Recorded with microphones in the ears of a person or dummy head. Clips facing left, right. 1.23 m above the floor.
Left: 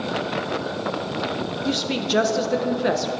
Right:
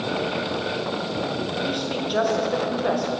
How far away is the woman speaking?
About 1.0 m.